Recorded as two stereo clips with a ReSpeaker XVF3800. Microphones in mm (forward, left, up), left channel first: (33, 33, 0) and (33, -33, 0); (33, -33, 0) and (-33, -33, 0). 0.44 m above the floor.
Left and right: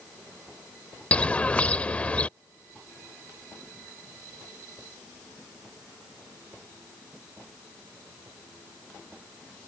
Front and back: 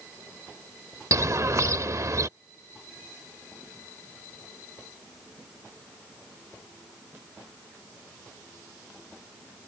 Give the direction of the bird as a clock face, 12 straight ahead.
7 o'clock.